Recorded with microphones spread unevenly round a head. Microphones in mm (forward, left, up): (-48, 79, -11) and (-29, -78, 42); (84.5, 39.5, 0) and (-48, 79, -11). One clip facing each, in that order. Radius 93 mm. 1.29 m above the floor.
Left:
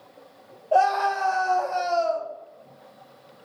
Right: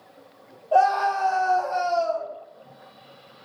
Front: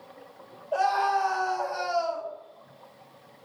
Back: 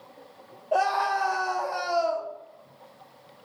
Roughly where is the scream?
Behind.